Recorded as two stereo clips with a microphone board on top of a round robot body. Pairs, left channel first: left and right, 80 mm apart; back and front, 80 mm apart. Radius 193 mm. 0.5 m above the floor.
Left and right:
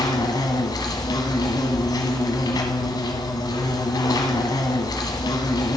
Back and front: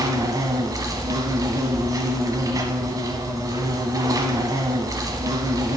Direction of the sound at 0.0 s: 50° left.